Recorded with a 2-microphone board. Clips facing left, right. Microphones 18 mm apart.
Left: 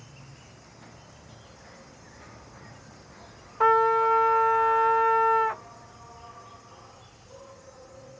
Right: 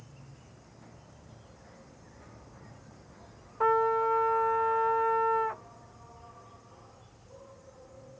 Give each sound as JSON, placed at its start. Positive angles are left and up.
{"t": 0.0, "sound": "an insect", "side_deg": 35}
{"t": 3.6, "sound": "a trumpet", "side_deg": 40}